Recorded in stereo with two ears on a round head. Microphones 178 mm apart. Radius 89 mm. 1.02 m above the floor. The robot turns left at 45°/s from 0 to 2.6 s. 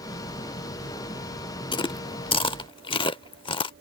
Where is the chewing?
25° left (ahead or behind).